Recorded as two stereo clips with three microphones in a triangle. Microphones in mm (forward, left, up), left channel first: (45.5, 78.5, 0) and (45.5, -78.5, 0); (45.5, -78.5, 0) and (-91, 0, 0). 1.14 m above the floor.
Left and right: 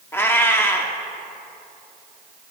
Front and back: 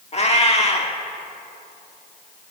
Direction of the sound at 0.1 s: 15° left.